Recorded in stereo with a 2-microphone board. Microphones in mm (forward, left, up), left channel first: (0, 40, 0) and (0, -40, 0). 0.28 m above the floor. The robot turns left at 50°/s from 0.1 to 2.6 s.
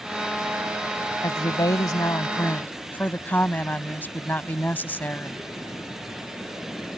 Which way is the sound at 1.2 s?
100° left.